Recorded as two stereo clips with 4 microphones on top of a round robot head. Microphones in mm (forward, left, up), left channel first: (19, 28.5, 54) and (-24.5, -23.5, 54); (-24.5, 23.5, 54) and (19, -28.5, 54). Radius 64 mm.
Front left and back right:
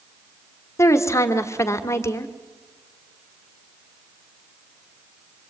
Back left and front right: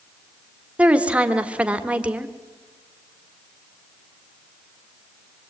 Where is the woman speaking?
20° left, 2 m.